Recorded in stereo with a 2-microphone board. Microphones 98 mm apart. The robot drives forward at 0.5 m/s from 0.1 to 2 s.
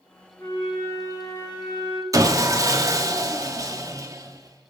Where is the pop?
No pop in this recording.